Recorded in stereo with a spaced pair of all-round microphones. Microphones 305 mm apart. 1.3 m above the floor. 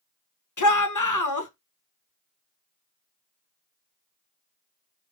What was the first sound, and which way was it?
A shout, 75° left (ahead or behind).